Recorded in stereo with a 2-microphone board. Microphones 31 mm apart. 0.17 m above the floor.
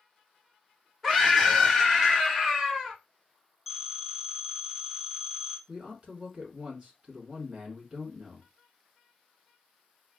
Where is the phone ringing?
5° right (ahead or behind), 1.7 m.